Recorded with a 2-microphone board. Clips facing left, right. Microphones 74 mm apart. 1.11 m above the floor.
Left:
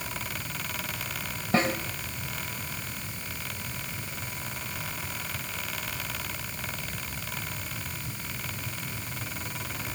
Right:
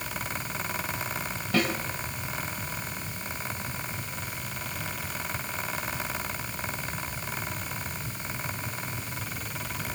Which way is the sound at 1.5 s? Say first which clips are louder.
Left 1 dB; 30° left (ahead or behind).